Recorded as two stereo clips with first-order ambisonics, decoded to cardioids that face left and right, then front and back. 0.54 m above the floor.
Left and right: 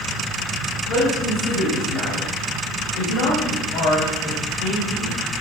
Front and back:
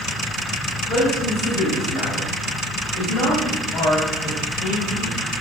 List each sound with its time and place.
0.9 s a man speaking: 60° left, 3 m